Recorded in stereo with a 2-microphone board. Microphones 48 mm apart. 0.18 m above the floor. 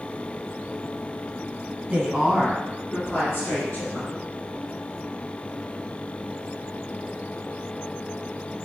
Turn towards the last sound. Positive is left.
turn(degrees=35)  # may be behind; listen again after turning